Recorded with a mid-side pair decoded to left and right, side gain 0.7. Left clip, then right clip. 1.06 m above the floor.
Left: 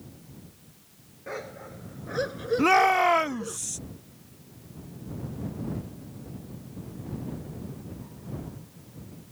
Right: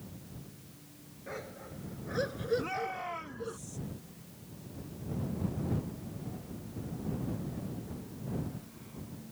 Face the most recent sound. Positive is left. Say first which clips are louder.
# left 16 dB
turn(degrees=60)